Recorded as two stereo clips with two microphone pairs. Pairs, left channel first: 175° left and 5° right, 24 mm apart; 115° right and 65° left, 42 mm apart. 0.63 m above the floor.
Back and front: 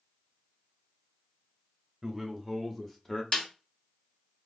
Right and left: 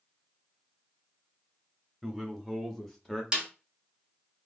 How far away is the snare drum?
About 1.5 m.